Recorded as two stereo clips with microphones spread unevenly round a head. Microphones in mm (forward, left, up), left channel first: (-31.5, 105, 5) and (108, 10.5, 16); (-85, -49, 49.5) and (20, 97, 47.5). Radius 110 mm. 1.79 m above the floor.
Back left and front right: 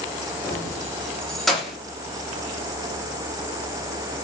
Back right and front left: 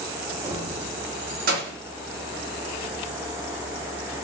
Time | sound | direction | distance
0.4 | keys jangling | 110° left | 0.7 m